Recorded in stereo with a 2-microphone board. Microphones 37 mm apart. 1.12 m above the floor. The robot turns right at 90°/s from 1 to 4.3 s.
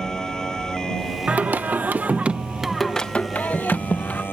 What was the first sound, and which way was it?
A motorcycle, 160° left.